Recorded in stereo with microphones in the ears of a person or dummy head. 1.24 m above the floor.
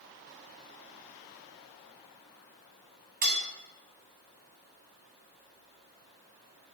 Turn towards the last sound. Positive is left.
turn(degrees=-45)  # may be behind; listen again after turning